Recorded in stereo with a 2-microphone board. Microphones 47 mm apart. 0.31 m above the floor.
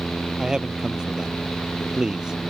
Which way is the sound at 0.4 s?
15° right (ahead or behind).